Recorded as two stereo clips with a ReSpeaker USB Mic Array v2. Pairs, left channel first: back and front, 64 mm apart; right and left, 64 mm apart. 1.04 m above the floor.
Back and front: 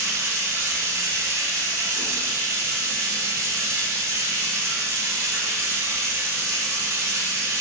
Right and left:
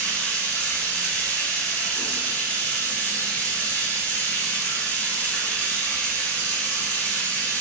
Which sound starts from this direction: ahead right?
Running water, at 0.0 s.